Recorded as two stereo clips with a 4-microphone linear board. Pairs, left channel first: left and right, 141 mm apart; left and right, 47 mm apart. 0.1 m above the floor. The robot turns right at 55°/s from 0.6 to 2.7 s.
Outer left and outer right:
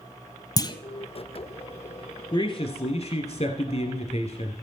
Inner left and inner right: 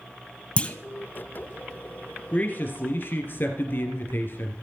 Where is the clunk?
25° left (ahead or behind), 0.8 m; by 0.8 s 35° left (ahead or behind), 0.8 m.